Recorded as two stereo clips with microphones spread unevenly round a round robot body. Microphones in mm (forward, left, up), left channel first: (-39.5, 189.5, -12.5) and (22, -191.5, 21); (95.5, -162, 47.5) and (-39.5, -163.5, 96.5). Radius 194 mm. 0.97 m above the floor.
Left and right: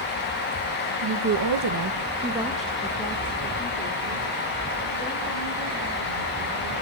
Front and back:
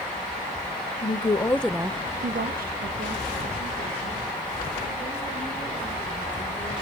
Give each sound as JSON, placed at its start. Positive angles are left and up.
{"t": 1.0, "sound": "a woman speaking", "azimuth_deg": -30, "distance_m": 1.7}